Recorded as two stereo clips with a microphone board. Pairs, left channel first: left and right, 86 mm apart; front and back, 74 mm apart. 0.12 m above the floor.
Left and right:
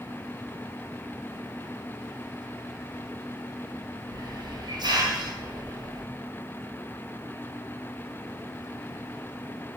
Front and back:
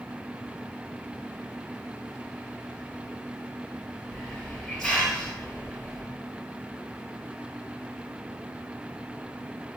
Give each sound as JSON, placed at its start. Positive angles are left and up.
{"t": 4.1, "sound": "a hiss", "azimuth_deg": -80, "distance_m": 1.2}